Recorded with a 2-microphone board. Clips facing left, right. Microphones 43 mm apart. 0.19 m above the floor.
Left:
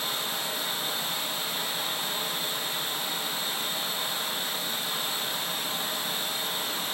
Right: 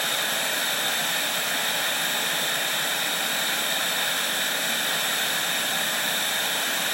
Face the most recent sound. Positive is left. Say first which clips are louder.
# right 6 dB
turn(degrees=-70)  # may be behind; listen again after turning